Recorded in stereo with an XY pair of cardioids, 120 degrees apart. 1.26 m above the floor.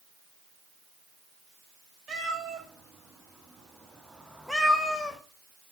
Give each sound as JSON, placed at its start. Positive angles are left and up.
{"t": 2.1, "sound": "a cat meowing", "azimuth_deg": -50, "distance_m": 1.6}